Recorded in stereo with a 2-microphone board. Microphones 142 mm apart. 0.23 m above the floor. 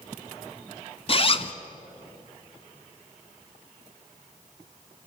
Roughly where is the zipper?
Left.